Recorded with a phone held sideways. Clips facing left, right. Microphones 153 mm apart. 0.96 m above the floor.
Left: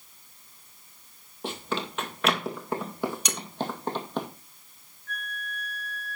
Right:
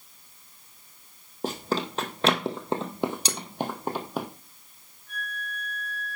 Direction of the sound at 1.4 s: 45° right (ahead or behind).